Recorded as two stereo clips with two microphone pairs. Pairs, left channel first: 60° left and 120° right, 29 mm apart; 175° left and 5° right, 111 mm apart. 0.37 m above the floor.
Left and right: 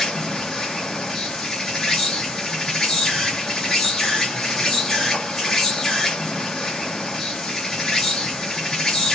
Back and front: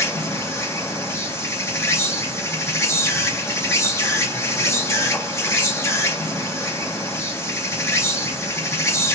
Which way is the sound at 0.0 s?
130° left.